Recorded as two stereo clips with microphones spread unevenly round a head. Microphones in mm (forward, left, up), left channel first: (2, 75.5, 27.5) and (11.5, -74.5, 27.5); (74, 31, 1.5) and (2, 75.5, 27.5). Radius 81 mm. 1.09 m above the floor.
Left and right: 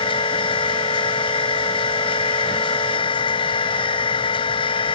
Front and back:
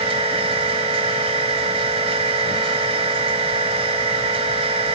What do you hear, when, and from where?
0.0 s a machine running: 155° left